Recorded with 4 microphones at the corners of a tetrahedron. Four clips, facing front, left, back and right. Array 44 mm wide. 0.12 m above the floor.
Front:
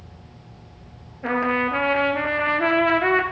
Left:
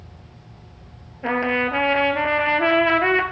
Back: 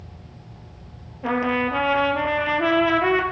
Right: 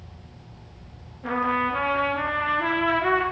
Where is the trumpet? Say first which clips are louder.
Left 3 dB, even; 75° left, 1.7 m.